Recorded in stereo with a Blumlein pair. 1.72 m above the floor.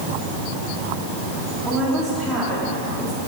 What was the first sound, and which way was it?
A woman speaking, 15° right.